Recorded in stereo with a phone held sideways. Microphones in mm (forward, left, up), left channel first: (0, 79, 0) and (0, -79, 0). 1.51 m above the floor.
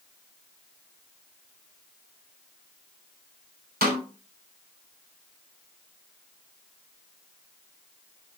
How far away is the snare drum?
About 3 m.